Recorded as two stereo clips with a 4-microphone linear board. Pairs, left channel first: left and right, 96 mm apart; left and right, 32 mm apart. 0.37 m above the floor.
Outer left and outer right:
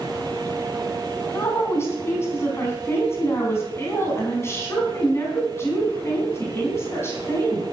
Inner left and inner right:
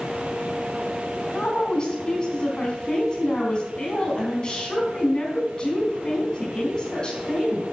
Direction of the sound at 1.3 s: 25° left (ahead or behind).